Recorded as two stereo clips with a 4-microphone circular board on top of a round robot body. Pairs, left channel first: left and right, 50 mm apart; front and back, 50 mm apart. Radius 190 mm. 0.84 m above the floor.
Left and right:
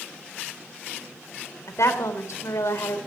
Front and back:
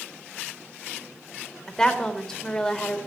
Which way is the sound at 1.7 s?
75° left.